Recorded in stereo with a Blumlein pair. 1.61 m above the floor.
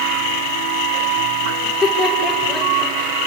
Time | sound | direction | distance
1.6 | laughter | 10° left | 6 m